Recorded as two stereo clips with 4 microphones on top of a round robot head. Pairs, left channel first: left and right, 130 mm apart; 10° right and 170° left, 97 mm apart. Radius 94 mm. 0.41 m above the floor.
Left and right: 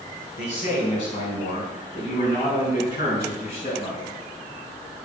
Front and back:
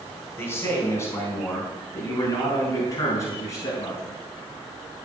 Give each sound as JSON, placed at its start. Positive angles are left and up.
{"t": 0.4, "sound": "a man speaking", "azimuth_deg": 55, "distance_m": 4.5}